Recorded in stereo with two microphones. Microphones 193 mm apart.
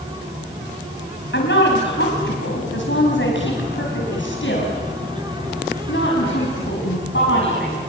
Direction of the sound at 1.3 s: 70° left (ahead or behind).